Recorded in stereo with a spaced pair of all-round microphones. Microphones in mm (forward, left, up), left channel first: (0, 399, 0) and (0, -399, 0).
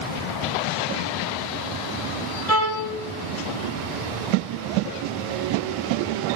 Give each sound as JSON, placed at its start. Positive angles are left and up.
{"t": 2.5, "sound": "a violin", "side_deg": 90, "distance_m": 7.0}